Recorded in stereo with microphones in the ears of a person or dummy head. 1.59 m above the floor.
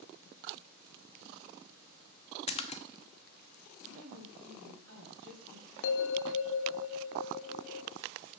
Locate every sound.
2.5 s a splash: 35° left (ahead or behind), 0.6 m
3.9 s a woman speaking: 75° right (ahead or behind), 3 m
5.8 s a bell: 65° left (ahead or behind), 0.7 m